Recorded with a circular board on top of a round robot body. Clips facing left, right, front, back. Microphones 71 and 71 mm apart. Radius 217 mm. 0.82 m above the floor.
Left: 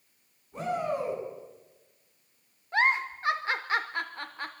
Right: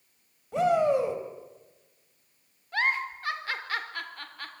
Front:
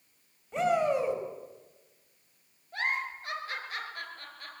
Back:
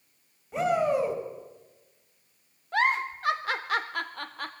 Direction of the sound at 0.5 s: 90° right.